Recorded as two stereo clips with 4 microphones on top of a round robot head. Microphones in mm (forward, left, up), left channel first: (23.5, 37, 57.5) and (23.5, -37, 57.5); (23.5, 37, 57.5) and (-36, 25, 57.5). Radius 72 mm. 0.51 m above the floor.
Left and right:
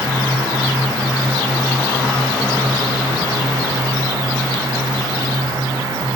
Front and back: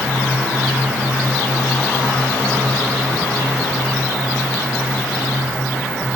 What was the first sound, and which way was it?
Only background noise.